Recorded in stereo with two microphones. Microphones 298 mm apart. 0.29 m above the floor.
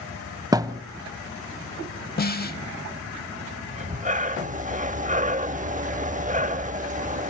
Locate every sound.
0.5 s a thud: 10° right (ahead or behind), 0.7 m
2.2 s a snare drum: 30° left (ahead or behind), 0.8 m
3.7 s breathing: 25° right (ahead or behind), 0.5 m